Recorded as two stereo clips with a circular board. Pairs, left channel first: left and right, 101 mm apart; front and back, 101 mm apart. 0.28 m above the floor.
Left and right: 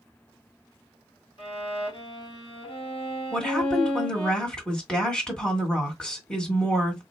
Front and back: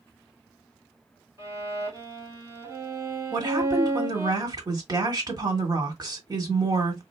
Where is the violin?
120° left, 1.6 m.